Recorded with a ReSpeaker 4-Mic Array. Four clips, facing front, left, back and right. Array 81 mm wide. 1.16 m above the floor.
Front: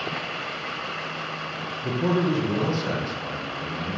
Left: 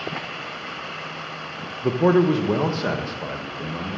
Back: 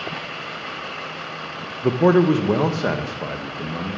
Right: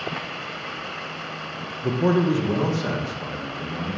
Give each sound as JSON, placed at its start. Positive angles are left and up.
{"t": 1.8, "sound": "a man speaking", "azimuth_deg": 155, "distance_m": 0.9}